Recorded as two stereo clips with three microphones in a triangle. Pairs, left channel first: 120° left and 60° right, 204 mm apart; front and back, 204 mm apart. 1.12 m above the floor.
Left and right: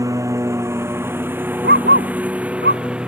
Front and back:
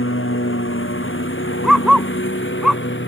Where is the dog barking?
90° right.